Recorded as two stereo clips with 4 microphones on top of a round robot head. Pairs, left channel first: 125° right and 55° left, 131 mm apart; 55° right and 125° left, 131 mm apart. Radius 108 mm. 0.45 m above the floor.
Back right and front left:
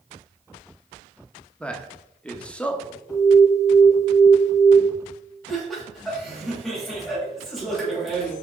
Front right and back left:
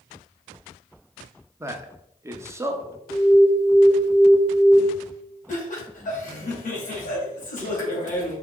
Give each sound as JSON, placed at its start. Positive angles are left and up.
{"t": 1.6, "sound": "a man speaking", "azimuth_deg": 165, "distance_m": 1.2}
{"t": 3.1, "sound": "an alarm", "azimuth_deg": -55, "distance_m": 3.0}
{"t": 5.5, "sound": "laughter", "azimuth_deg": -35, "distance_m": 2.5}